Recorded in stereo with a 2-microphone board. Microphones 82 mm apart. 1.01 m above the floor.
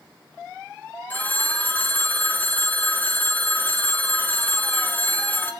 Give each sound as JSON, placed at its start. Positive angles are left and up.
{"t": 1.1, "sound": "a phone ringing", "side_deg": 20, "distance_m": 0.7}